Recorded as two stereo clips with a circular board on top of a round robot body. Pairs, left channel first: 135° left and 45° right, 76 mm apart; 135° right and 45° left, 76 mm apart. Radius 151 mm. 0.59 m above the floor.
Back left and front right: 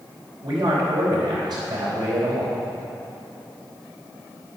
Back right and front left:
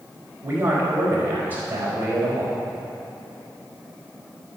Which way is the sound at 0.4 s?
20° right.